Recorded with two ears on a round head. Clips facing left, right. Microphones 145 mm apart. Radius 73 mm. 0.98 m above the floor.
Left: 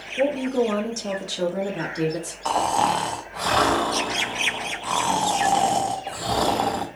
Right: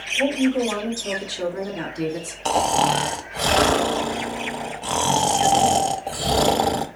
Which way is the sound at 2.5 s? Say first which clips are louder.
Right 2 dB; 30° right (ahead or behind).